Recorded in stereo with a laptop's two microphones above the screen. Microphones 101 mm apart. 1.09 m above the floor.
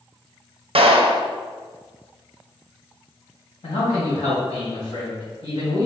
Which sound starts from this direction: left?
A man speaking, at 3.6 s.